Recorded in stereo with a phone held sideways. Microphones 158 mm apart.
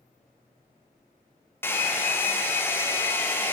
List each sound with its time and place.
1.6 s a hair dryer: 15° left (ahead or behind), 0.5 m